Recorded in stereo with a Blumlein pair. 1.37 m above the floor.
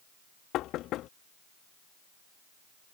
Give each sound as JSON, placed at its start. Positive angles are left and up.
{"t": 0.5, "sound": "knocking", "azimuth_deg": 35}